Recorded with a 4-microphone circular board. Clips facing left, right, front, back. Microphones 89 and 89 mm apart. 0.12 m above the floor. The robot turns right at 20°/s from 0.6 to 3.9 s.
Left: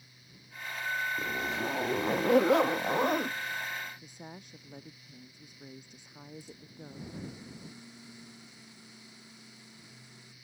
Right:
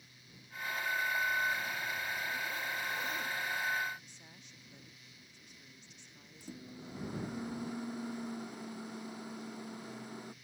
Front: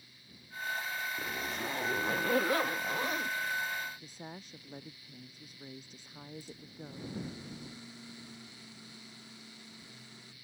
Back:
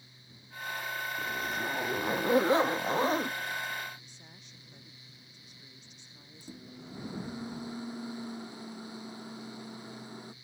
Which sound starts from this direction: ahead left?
A woman speaking, at 4.0 s.